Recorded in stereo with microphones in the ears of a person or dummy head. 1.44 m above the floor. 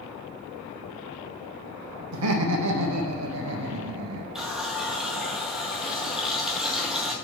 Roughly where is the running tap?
Centre.